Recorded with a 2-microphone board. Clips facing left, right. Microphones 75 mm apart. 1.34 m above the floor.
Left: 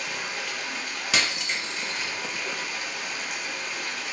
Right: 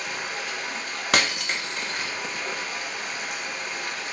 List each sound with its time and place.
0.0 s running water: 45° right (ahead or behind), 2 m
1.1 s breaking glass: 55° right (ahead or behind), 1.0 m